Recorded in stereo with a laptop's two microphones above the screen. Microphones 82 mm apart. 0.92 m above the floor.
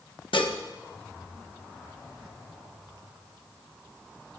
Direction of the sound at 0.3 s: 85° left.